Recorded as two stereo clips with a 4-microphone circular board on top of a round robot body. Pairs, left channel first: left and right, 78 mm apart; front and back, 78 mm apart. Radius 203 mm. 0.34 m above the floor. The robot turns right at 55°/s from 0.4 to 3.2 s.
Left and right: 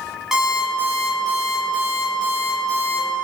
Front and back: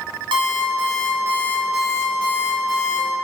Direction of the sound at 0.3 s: 175° right.